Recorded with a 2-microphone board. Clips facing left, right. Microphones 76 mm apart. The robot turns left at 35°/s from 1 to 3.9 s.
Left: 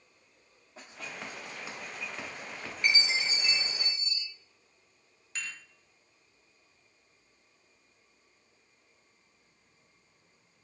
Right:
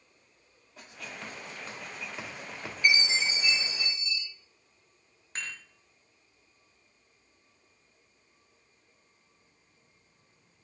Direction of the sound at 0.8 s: 25° left (ahead or behind).